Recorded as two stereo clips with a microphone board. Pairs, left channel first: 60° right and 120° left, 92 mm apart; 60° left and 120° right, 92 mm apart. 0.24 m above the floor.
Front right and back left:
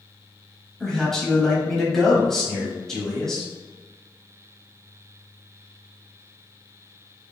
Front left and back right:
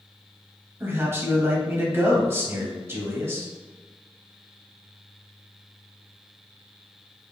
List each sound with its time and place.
0.8 s a man speaking: 140° right, 1.0 m